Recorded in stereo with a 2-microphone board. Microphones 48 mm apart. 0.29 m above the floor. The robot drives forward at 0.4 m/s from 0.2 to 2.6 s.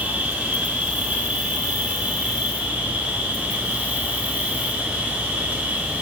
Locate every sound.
0.0 s an insect: 35° right (ahead or behind), 3.5 m; by 6.0 s 25° right (ahead or behind), 4 m